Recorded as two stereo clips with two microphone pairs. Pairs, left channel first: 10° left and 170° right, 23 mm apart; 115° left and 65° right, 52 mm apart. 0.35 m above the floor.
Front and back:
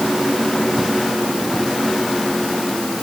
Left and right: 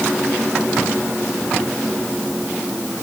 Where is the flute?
No flute in this recording.